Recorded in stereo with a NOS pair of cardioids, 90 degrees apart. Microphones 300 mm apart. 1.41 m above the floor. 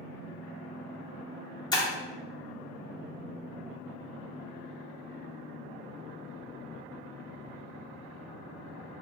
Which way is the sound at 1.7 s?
15° left.